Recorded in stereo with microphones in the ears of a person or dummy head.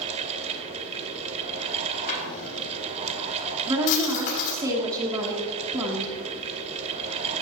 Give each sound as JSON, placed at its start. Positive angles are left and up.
{"t": 0.0, "sound": "a fan", "side_deg": -35, "distance_m": 1.7}
{"t": 2.1, "sound": "a drawer", "side_deg": 50, "distance_m": 6.0}
{"t": 3.7, "sound": "a woman speaking", "side_deg": -20, "distance_m": 2.5}